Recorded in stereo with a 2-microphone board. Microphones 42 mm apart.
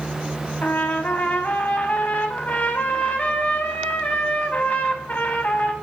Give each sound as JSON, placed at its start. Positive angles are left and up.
{"t": 0.6, "sound": "a trumpet", "side_deg": 35, "distance_m": 0.8}